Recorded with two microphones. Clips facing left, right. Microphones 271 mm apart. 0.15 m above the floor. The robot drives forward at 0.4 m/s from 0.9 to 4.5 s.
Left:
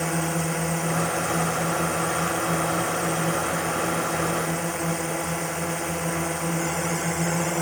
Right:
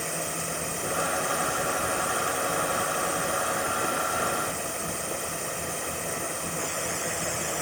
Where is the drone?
80° left; by 7.6 s 75° left (ahead or behind).